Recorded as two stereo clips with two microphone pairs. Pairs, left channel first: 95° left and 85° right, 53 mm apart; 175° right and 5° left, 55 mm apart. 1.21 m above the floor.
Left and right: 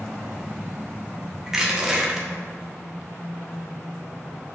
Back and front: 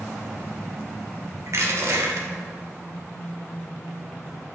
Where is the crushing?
10° right, 1.1 m.